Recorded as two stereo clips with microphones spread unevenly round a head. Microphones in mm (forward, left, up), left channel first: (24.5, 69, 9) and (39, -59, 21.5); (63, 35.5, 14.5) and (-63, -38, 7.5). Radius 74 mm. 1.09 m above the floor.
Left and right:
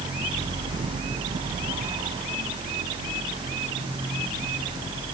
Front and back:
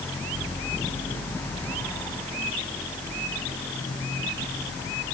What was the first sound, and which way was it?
Only background noise.